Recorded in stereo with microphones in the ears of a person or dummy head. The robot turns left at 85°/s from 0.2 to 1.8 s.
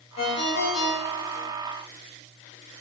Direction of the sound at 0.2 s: 115° left.